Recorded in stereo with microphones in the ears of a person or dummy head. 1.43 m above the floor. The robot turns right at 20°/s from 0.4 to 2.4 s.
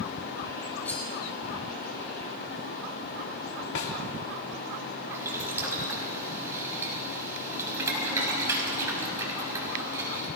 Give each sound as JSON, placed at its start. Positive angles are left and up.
{"t": 0.8, "sound": "cutlery clinking", "side_deg": 5, "distance_m": 5.5}
{"t": 3.8, "sound": "a snare drum", "side_deg": 60, "distance_m": 3.5}
{"t": 5.1, "sound": "boiling", "side_deg": -15, "distance_m": 5.5}